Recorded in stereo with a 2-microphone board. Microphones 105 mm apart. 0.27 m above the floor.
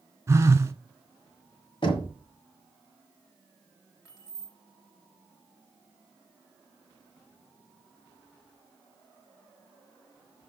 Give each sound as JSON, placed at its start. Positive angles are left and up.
{"t": 0.3, "sound": "a phone buzzing", "side_deg": -25, "distance_m": 0.8}
{"t": 1.8, "sound": "knocking", "side_deg": 50, "distance_m": 1.6}
{"t": 4.0, "sound": "keys jangling", "side_deg": 30, "distance_m": 2.5}